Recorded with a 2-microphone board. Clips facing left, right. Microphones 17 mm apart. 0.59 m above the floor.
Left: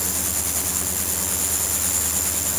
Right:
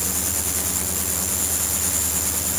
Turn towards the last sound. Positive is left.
No sound to turn to.